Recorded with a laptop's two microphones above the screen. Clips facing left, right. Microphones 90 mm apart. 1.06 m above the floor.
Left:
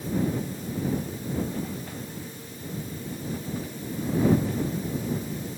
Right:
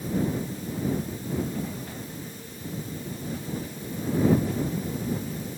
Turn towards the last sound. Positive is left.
No sound to turn to.